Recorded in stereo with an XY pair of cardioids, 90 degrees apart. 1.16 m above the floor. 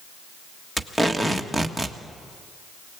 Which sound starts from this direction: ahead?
Tape being pulled, at 0.8 s.